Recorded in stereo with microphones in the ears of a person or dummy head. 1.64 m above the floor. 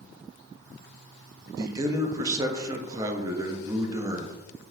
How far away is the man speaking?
About 0.6 m.